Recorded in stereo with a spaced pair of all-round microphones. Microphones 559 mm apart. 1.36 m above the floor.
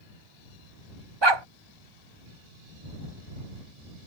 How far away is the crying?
I don't hear crying.